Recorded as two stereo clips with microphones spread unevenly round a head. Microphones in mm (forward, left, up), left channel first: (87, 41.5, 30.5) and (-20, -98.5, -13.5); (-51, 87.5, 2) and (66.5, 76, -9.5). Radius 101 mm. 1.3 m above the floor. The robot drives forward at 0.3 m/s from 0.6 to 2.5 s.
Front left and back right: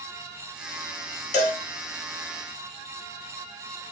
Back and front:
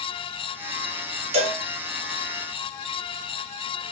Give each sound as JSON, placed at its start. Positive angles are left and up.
{"t": 1.3, "sound": "a cowbell", "azimuth_deg": 0, "distance_m": 1.0}